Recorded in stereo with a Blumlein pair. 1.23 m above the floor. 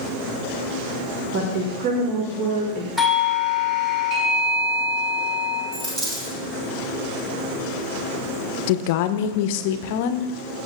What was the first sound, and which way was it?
A woman speaking, 45° right.